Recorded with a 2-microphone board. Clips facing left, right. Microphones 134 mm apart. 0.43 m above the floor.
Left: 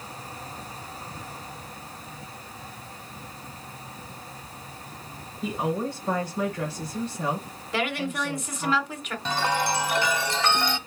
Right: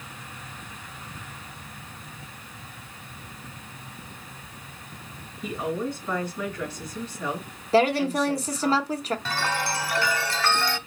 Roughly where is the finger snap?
No finger snap in this recording.